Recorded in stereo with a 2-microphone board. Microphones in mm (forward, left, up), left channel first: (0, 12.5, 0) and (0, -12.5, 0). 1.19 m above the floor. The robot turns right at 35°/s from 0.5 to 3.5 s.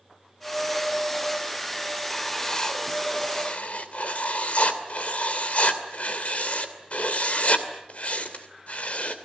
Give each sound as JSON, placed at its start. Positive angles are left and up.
{"t": 2.1, "sound": "writing", "azimuth_deg": 5, "distance_m": 2.5}